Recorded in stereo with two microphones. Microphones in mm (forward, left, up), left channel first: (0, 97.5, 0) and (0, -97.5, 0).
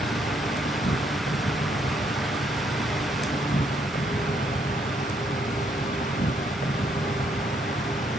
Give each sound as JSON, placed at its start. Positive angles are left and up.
{"t": 0.0, "sound": "an insect", "side_deg": 45}